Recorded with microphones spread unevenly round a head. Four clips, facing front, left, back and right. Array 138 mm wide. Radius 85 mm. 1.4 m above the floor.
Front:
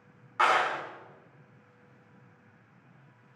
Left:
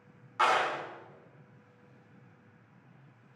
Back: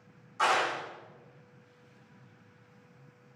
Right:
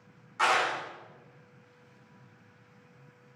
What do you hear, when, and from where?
0.4 s a clap: 5° left, 3.5 m